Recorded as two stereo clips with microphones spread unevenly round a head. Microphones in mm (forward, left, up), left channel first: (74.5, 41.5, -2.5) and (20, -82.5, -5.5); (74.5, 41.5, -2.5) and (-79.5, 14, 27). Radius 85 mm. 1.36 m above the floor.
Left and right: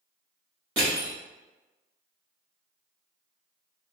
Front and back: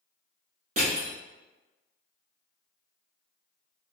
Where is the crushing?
170° right, 1.3 m.